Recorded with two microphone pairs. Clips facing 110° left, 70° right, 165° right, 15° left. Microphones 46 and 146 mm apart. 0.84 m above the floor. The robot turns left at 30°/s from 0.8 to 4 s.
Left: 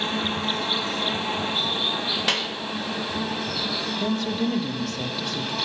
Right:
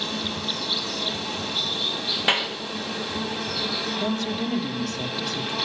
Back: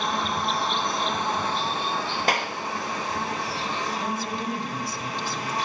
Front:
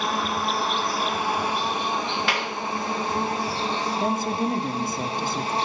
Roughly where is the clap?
Behind right.